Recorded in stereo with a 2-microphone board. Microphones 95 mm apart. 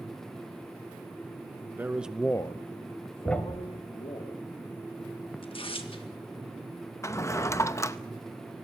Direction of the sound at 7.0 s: 30° left (ahead or behind).